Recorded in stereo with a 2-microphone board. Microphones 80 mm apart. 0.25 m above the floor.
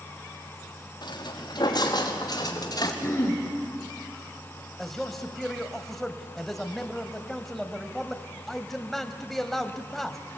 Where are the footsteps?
65° left (ahead or behind), 5 m; by 2.9 s 55° left (ahead or behind), 4.5 m.